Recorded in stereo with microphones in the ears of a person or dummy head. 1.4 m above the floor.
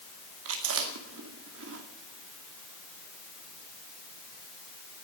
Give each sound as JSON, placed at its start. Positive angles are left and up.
{"t": 0.5, "sound": "chewing", "side_deg": -75, "distance_m": 2.0}